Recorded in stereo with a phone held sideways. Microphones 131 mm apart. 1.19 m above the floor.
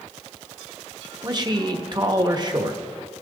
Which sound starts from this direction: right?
A man speaking, at 1.2 s.